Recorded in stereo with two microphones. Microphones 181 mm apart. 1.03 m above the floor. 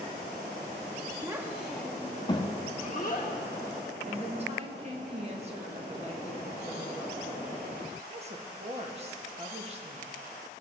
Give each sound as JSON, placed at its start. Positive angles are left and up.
{"t": 1.2, "sound": "a child speaking", "side_deg": -20, "distance_m": 0.9}
{"t": 4.0, "sound": "a woman speaking", "side_deg": -35, "distance_m": 1.3}